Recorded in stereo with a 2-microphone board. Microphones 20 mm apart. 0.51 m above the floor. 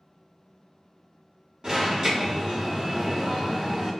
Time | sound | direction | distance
1.6 | an alarm | 50° right (ahead or behind) | 1.2 m